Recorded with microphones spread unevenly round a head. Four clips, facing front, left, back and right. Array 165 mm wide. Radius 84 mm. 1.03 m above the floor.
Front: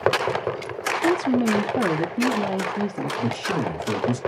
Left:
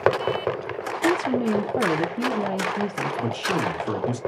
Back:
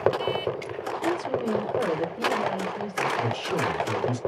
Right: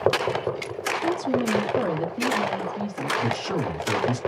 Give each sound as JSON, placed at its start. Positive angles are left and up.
{"t": 1.0, "sound": "a woman speaking", "azimuth_deg": 35, "distance_m": 1.2}
{"t": 3.2, "sound": "a man speaking", "azimuth_deg": 55, "distance_m": 1.7}